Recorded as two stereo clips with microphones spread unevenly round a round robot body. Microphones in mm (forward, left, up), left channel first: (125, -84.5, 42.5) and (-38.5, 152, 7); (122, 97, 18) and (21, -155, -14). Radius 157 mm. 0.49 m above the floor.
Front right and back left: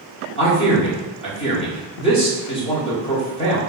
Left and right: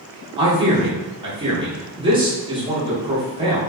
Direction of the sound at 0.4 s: 115° right.